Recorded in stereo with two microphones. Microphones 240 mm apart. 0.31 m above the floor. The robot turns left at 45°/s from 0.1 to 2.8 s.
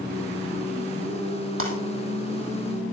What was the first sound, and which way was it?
Breaking glass, 65° right (ahead or behind).